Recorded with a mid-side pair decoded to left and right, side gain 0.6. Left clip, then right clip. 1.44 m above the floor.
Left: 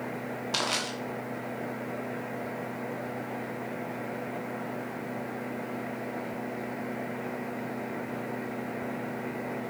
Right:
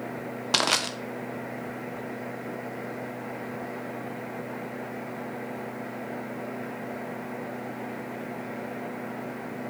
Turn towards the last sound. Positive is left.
turn(degrees=-40)